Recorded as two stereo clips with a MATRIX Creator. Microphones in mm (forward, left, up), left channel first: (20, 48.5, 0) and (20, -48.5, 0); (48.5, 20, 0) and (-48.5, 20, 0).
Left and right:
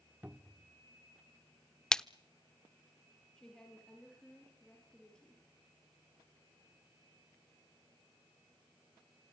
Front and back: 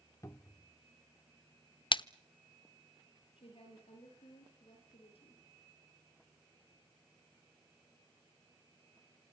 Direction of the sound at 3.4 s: 5° left.